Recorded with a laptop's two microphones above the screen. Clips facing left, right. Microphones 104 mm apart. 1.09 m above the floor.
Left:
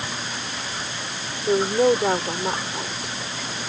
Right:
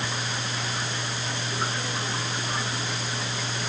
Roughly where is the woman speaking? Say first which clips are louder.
Left 17 dB; left.